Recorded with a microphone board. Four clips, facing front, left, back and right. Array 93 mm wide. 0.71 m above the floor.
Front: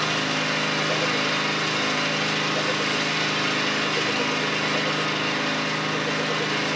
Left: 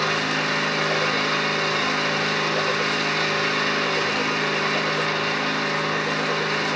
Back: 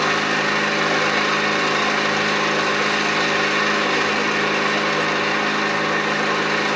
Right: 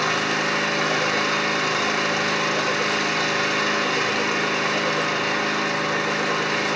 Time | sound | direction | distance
0.0 | an engine running | 170° right | 1.4 m